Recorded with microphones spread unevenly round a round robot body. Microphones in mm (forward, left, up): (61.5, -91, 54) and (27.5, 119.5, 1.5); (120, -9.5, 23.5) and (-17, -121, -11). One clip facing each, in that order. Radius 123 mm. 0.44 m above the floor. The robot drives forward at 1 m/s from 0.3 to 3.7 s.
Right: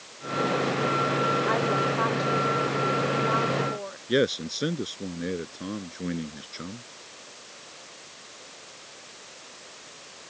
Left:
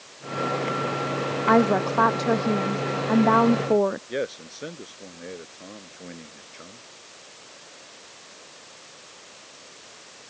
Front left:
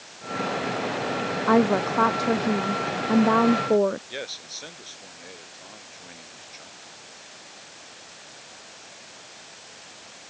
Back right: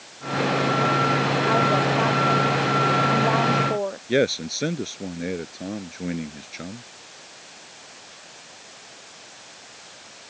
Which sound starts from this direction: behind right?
A man speaking, at 4.1 s.